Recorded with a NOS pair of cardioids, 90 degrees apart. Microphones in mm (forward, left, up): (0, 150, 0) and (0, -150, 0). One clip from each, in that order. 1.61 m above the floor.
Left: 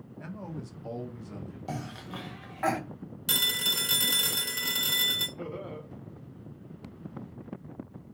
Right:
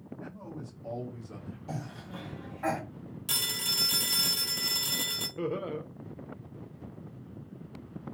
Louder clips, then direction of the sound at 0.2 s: Left 4 dB; 45° left.